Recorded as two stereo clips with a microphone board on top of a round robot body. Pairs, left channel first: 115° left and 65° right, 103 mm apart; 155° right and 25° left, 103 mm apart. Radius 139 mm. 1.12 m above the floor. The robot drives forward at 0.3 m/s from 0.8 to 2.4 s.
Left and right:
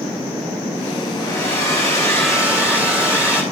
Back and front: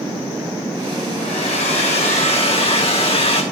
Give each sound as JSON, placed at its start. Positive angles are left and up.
{"t": 1.2, "sound": "a hair dryer", "azimuth_deg": 180, "distance_m": 1.5}